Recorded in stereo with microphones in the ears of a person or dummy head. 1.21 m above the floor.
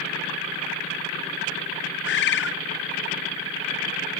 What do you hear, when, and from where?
2.0 s a bird: 60° left (ahead or behind), 0.5 m